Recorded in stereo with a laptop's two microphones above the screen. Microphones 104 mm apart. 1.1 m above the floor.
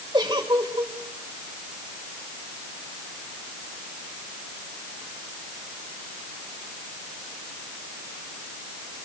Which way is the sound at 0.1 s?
45° right (ahead or behind).